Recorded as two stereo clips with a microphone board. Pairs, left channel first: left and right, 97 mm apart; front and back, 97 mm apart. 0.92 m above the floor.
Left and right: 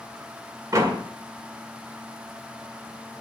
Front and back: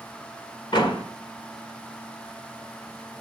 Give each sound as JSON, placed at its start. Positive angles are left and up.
{"t": 0.7, "sound": "a door slam", "azimuth_deg": -35, "distance_m": 1.9}